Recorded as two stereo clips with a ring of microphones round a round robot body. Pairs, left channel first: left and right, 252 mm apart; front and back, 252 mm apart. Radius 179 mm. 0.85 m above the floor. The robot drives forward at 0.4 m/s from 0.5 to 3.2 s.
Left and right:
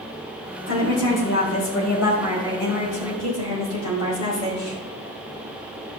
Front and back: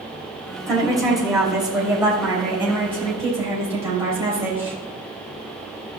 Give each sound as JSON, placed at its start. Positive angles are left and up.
{"t": 0.7, "sound": "a woman speaking", "azimuth_deg": 90, "distance_m": 4.5}